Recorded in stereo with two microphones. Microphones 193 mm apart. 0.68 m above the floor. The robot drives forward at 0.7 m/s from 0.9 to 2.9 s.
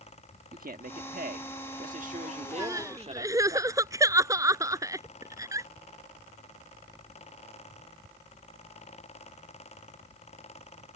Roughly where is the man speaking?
Right.